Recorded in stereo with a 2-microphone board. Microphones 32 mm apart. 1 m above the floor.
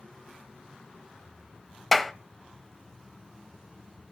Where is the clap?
5° left (ahead or behind), 0.7 m.